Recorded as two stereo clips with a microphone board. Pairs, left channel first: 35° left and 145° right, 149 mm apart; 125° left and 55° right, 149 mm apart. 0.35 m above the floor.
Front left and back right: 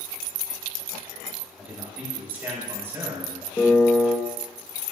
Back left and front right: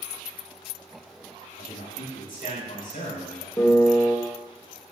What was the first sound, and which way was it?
A man speaking, 135° left.